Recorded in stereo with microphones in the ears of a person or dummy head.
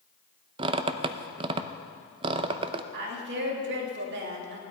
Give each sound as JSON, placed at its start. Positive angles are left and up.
{"t": 0.6, "sound": "a squeak", "side_deg": -30, "distance_m": 0.7}
{"t": 2.9, "sound": "a woman speaking", "side_deg": -65, "distance_m": 3.0}